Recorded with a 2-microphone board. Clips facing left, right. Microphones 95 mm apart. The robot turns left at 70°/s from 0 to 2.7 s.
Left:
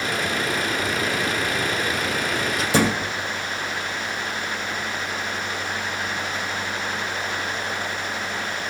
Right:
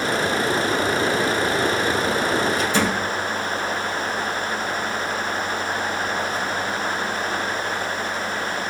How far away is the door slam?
About 4.5 m.